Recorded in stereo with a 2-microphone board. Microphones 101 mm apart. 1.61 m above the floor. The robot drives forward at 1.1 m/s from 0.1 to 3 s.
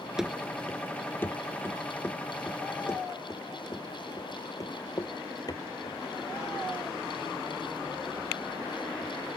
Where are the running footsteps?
5° right (ahead or behind); by 9.1 s 50° left (ahead or behind).